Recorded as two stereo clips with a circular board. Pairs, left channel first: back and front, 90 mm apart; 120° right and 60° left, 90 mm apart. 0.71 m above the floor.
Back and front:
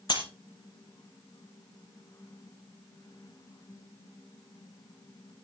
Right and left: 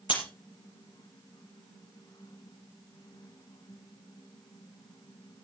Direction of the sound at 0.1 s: 140° right.